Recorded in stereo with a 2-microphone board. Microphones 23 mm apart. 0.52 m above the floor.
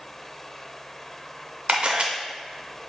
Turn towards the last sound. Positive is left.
turn(degrees=-60)  # may be behind; listen again after turning